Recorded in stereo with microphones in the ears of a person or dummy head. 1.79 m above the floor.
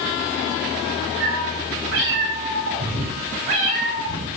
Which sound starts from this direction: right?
A cat meowing, at 1.2 s.